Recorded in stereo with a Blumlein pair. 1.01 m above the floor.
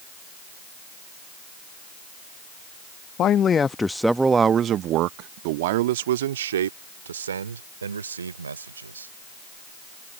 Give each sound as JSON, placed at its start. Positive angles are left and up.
{"t": 3.2, "sound": "a man speaking", "azimuth_deg": 30}